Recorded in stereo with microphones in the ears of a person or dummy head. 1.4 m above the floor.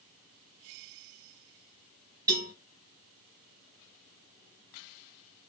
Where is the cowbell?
15° right (ahead or behind), 3.5 m.